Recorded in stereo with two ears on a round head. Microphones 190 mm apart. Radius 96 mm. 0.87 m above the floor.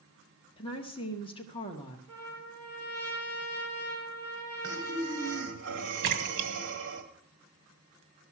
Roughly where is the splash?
Right.